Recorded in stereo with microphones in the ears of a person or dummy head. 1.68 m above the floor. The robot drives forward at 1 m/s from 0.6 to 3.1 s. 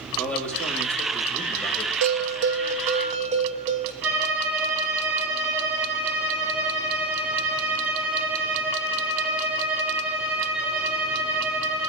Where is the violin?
15° right (ahead or behind), 4.5 m.